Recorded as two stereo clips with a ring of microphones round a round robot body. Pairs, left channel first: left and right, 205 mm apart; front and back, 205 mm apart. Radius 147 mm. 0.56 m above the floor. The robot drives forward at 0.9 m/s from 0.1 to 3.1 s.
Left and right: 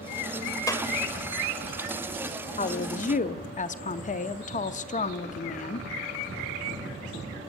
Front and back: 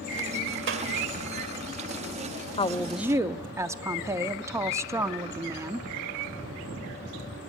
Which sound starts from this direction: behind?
A clap, at 0.7 s.